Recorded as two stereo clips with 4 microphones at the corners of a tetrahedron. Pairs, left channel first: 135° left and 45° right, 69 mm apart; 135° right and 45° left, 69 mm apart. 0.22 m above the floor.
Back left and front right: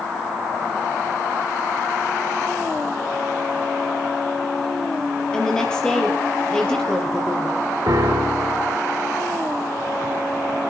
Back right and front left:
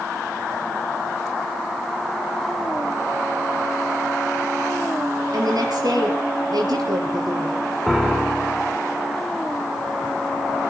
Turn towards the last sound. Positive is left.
turn(degrees=-40)